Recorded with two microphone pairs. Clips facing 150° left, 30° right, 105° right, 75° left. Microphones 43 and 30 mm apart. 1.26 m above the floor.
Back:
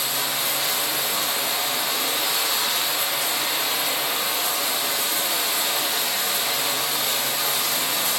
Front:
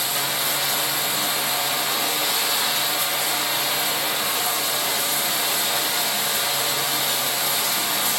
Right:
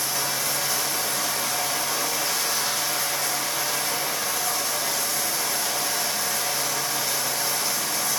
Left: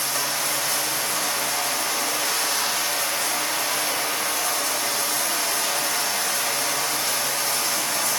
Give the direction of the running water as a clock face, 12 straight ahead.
10 o'clock.